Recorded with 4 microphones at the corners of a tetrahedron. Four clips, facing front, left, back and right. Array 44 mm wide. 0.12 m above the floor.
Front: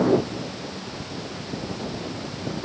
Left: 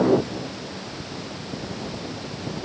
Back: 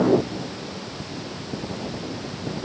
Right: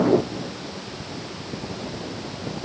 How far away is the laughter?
I don't hear laughter.